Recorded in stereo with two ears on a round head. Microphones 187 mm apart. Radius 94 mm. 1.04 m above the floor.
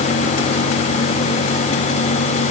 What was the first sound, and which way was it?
Only background noise.